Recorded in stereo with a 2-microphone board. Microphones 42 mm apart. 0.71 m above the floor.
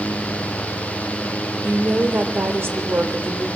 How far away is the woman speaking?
About 2.5 m.